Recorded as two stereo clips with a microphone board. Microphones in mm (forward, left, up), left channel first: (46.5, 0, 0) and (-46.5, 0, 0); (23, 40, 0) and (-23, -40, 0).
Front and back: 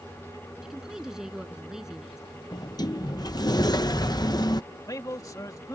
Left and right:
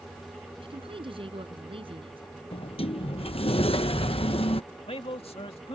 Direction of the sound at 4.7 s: 55° left.